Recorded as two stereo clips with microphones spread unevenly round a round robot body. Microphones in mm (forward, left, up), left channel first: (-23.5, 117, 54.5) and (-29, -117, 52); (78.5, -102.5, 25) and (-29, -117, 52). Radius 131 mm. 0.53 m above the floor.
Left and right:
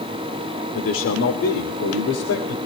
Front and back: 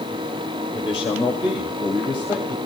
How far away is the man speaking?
About 1.7 m.